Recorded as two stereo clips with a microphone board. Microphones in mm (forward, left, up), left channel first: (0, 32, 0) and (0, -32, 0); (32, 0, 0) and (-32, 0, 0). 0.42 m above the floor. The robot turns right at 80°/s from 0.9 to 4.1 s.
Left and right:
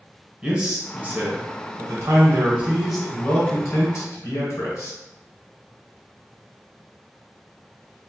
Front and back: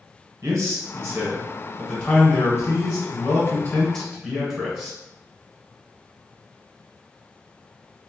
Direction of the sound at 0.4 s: 160° right.